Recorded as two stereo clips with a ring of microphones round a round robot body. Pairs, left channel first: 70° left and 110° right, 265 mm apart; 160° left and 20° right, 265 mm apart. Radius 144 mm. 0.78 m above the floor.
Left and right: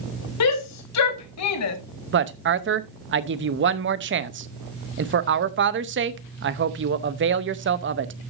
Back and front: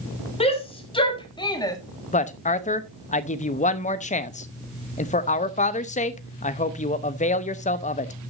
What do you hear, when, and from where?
0.4 s a shout: 90° left, 2.5 m; by 1.8 s 80° left, 1.5 m
2.1 s a woman speaking: 145° right, 0.8 m